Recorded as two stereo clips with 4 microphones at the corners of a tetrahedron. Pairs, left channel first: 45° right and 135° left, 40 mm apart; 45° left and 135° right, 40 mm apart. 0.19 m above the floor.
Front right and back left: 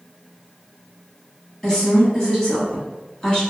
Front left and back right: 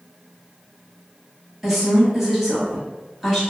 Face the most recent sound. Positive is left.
turn(degrees=-65)